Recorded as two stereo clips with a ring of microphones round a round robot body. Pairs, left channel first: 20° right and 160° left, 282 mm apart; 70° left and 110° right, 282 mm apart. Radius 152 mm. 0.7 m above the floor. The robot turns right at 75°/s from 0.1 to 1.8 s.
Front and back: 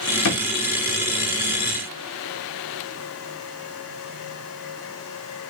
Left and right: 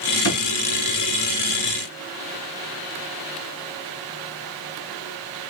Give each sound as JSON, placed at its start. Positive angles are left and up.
{"t": 0.2, "sound": "a drawer", "azimuth_deg": 20, "distance_m": 1.1}